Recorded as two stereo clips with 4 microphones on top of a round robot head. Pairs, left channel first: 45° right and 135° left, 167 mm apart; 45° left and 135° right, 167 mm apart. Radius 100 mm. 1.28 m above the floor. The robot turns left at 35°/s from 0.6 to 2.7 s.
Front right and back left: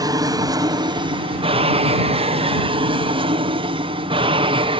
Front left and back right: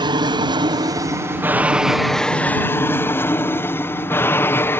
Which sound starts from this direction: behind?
An aircraft, at 0.0 s.